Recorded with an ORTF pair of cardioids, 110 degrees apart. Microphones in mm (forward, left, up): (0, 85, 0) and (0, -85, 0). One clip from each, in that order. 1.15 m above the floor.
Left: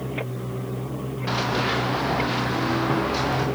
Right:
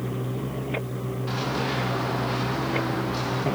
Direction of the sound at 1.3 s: 50° left.